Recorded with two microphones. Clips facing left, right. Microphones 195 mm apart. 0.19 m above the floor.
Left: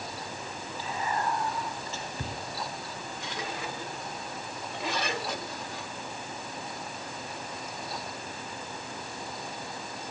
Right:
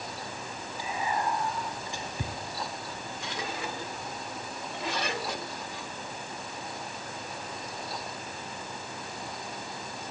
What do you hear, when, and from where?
0.8 s whispering: 15° right (ahead or behind), 1.0 m